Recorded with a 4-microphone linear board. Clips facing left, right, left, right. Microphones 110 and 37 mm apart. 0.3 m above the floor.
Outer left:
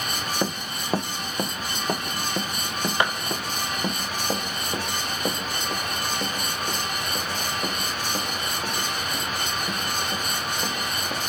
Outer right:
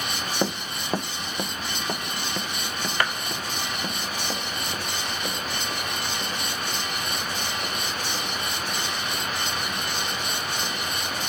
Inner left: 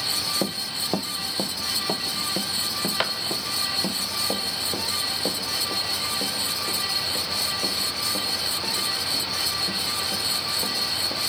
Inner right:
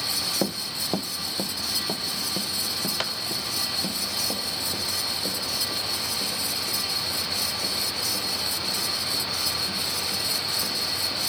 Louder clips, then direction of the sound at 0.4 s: Outer right 4 dB, even; 5° right (ahead or behind).